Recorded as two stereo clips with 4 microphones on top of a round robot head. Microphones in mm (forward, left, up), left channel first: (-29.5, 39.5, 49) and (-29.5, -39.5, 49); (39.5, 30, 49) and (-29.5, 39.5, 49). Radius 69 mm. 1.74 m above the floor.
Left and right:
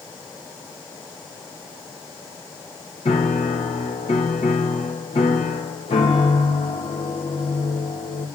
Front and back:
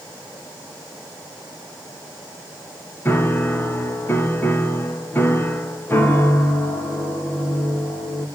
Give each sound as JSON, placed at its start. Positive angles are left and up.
{"t": 3.0, "sound": "a piano", "azimuth_deg": 55, "distance_m": 2.5}